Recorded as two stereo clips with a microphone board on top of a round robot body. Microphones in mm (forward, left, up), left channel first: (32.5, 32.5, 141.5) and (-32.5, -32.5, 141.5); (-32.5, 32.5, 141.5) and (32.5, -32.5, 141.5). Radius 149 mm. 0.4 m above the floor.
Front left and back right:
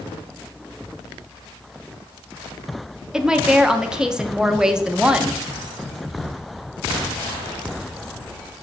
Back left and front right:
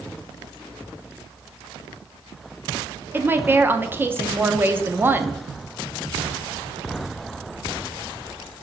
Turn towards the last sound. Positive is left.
turn(degrees=-65)